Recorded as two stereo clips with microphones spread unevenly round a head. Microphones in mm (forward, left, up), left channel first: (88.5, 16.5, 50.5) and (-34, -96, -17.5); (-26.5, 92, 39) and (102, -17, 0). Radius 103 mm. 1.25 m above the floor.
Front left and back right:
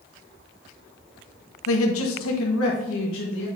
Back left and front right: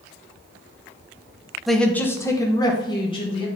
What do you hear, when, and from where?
1.7 s a man speaking: 45° left, 1.0 m; by 3.5 s 80° left, 1.9 m